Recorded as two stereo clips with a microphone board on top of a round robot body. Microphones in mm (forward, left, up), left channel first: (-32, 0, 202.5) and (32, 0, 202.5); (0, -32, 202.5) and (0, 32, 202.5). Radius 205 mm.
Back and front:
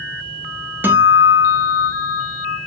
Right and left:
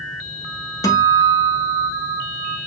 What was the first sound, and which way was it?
A guitar, 60° right.